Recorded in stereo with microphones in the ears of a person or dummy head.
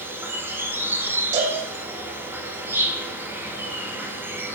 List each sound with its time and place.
0.0 s an insect: 15° right (ahead or behind), 3 m
1.3 s a cowbell: 45° right (ahead or behind), 4 m